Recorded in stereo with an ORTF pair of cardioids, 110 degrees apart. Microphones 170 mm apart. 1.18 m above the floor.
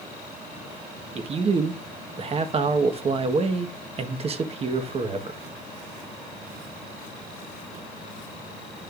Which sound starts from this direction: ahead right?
A man speaking, at 1.1 s.